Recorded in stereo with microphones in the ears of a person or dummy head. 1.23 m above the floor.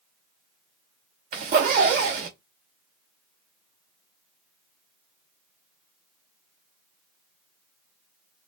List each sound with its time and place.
1.3 s a zipper: 45° right (ahead or behind), 1.0 m